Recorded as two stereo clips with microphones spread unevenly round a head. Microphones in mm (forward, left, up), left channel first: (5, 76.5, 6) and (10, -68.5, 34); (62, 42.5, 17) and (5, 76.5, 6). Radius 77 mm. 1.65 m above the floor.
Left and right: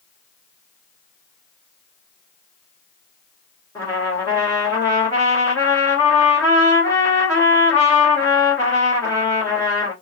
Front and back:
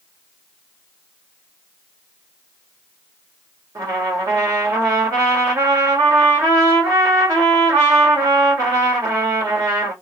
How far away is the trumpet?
About 1.2 m.